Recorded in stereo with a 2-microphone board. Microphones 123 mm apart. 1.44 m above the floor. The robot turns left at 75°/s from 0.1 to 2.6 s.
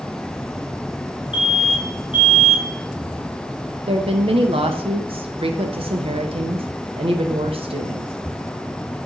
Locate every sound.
1.3 s an alarm: 50° left (ahead or behind), 2.5 m; by 3.8 s 40° right (ahead or behind), 2.5 m
3.9 s a woman speaking: 50° right (ahead or behind), 0.8 m